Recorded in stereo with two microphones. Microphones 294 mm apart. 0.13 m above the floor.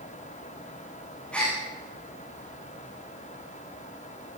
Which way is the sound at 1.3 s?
5° left (ahead or behind).